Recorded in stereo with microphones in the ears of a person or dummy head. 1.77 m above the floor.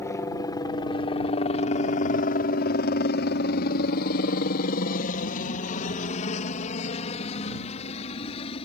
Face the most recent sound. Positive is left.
turn(degrees=30)  # may be behind; listen again after turning